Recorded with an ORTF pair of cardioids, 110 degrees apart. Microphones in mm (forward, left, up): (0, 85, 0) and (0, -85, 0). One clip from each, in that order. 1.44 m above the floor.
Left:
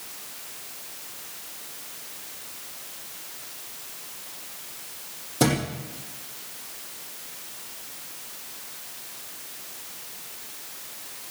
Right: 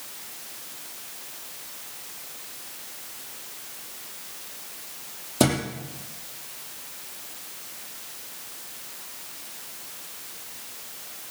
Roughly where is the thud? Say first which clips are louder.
Right 1 dB; ahead right.